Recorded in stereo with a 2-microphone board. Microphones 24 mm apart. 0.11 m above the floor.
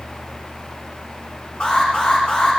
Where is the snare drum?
I don't hear a snare drum.